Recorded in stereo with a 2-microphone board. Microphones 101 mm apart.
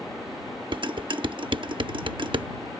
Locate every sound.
0.7 s dishes clattering: 55° right (ahead or behind)